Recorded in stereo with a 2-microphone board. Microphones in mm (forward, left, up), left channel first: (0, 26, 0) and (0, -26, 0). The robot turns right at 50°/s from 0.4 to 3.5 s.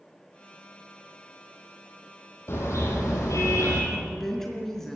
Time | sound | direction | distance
2.5 | a car horn | 50° left | 5.5 m
3.9 | a woman speaking | 5° left (ahead or behind) | 4.5 m